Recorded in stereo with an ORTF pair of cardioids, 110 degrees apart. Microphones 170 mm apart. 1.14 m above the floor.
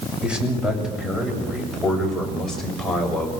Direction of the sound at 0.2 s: 5° right.